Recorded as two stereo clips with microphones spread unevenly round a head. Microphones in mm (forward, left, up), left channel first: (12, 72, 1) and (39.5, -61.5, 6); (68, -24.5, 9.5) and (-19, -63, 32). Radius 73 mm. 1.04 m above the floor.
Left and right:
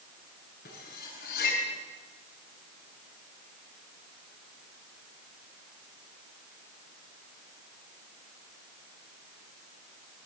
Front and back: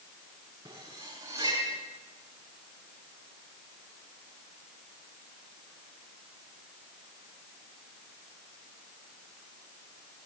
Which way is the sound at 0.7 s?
135° left.